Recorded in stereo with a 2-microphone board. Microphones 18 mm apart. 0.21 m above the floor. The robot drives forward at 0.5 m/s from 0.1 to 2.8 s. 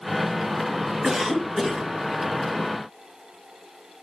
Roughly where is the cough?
Right.